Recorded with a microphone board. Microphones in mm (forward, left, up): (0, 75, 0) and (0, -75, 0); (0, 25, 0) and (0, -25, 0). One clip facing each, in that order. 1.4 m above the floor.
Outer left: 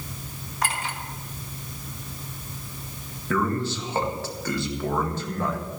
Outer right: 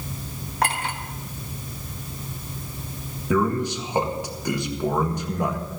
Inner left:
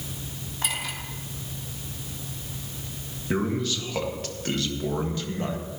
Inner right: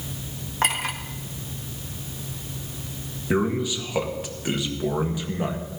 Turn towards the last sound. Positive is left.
turn(degrees=-15)  # may be behind; listen again after turning